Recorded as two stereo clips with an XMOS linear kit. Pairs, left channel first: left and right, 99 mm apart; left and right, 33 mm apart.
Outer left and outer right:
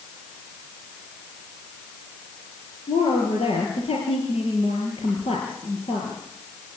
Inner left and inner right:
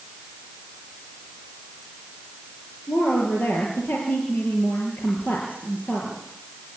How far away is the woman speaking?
About 6.5 m.